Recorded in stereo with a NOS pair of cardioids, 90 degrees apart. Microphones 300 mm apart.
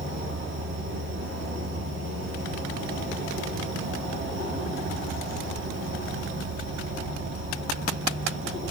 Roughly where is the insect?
Ahead right.